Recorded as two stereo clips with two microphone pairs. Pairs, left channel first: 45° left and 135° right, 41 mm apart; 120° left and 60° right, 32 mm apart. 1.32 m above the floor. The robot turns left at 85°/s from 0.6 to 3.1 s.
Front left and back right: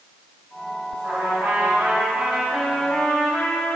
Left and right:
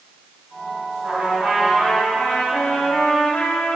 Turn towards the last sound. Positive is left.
turn(degrees=95)